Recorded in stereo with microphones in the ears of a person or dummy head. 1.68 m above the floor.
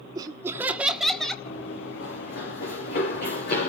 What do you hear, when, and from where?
0.1 s laughter: 20° right (ahead or behind), 1.1 m; by 1.4 s 10° left (ahead or behind), 1.6 m
1.4 s running footsteps: 65° left (ahead or behind), 5 m; by 3.7 s 55° left (ahead or behind), 6 m